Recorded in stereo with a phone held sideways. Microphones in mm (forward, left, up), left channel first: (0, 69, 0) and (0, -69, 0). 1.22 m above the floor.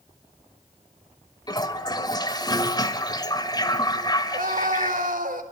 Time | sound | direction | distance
1.5 | a toilet flushing | 30° left (ahead or behind) | 2 m
4.3 | a scream | 80° right | 5 m